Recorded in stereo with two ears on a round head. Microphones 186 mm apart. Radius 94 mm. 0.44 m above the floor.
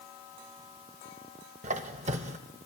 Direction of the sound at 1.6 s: 35° right (ahead or behind).